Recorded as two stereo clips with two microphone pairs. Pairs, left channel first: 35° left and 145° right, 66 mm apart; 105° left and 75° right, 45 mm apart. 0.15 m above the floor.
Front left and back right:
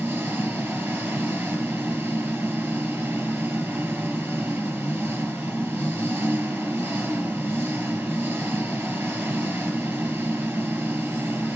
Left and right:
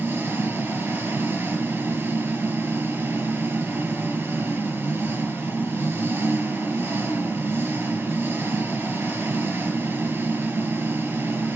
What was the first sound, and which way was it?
An engine running, 90° right.